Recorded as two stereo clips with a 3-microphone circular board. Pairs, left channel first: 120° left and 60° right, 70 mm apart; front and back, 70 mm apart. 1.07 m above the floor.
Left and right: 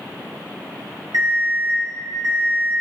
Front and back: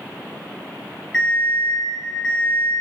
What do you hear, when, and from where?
1.1 s an alarm clock: 80° right, 2.5 m